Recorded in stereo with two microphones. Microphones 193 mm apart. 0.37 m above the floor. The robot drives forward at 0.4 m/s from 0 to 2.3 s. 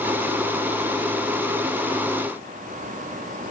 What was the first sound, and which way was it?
Only background noise.